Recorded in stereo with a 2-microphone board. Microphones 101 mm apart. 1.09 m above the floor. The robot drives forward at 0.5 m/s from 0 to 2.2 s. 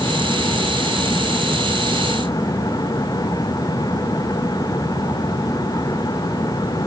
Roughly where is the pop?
I don't hear a pop.